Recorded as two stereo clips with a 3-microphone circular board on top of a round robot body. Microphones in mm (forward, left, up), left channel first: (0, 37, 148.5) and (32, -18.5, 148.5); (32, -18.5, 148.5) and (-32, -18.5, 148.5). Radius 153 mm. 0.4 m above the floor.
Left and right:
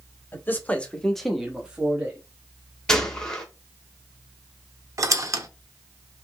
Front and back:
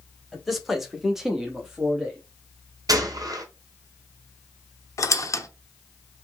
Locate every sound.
0.3 s a man speaking: 90° left, 1.3 m; by 2.2 s 100° right, 1.4 m
2.9 s a gunshot: 160° right, 1.1 m
5.0 s a squeak: 30° right, 0.8 m